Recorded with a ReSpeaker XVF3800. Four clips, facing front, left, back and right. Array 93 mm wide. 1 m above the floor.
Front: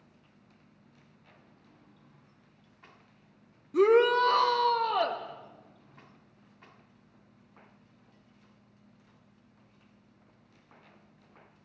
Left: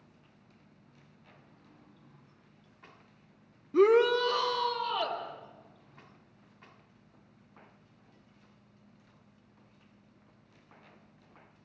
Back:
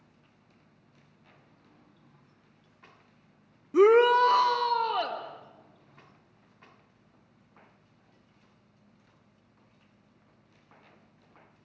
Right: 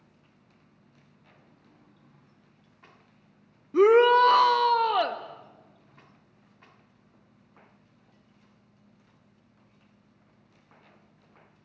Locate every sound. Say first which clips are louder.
3.7 s a shout: right 5 dB, back 3 dB; 160° right, 0.5 m; by 5.2 s 90° right, 1.6 m